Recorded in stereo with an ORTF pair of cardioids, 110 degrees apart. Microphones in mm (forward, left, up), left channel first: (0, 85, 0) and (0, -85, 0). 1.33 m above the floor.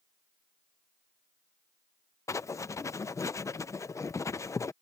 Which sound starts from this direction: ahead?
Writing, at 2.3 s.